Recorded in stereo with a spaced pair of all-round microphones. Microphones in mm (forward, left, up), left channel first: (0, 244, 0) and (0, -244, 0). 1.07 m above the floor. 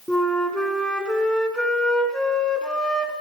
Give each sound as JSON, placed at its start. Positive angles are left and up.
{"t": 0.1, "sound": "a flute", "side_deg": 0, "distance_m": 3.0}